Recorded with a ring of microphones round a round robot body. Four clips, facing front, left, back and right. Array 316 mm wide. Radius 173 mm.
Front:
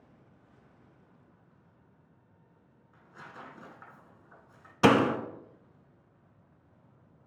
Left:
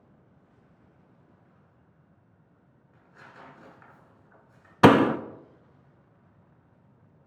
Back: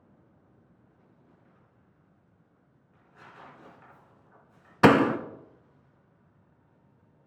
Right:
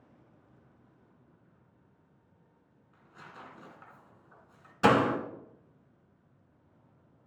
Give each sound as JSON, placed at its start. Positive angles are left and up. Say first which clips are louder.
{"t": 2.9, "sound": "tearing paper", "louder": "even, front 3 dB", "azimuth_deg": -20, "distance_m": 3.0}
{"t": 4.8, "sound": "a door slam", "louder": "left 7 dB, back 3 dB", "azimuth_deg": 110, "distance_m": 0.6}